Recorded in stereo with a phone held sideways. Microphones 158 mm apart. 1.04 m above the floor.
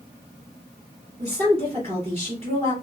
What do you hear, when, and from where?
1.2 s a woman speaking: 40° right (ahead or behind), 2.5 m